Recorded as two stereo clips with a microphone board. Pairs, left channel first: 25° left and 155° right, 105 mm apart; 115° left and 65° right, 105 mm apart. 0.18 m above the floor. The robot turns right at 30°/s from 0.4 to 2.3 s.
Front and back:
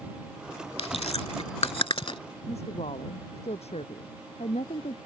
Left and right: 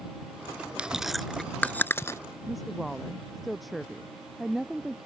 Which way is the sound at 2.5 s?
25° left.